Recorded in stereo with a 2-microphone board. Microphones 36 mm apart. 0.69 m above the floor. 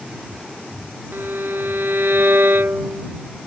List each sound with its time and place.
1.1 s a violin: 80° right